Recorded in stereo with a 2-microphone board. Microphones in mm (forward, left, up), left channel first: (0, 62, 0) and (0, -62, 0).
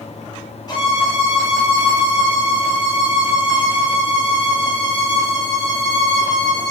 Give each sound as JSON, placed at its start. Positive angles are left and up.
{"t": 0.7, "sound": "a violin", "side_deg": 35, "distance_m": 0.7}